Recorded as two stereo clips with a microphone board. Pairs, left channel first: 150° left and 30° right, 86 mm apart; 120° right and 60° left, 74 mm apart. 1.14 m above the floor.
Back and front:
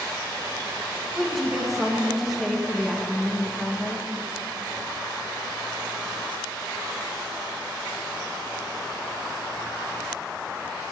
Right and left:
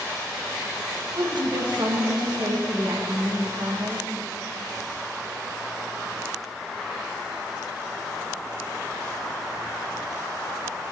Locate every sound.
1.1 s a woman speaking: 60° left, 1.3 m